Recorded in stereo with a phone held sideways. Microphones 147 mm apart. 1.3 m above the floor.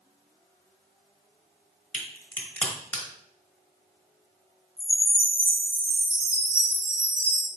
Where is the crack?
10° left (ahead or behind), 1.1 m.